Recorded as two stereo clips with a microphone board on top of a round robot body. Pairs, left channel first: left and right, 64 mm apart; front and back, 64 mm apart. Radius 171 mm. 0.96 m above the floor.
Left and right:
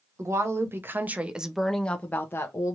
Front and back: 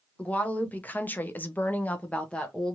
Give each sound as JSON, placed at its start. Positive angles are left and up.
{"t": 0.2, "sound": "a woman speaking", "azimuth_deg": -65, "distance_m": 1.1}